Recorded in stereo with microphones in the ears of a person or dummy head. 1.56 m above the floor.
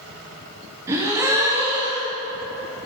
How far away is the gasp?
About 0.6 m.